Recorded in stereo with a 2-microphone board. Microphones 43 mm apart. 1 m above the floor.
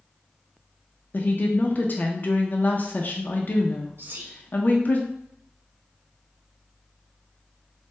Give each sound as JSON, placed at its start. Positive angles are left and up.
{"t": 1.1, "sound": "a woman speaking", "side_deg": 45, "distance_m": 0.5}
{"t": 4.0, "sound": "whispering", "side_deg": -55, "distance_m": 0.6}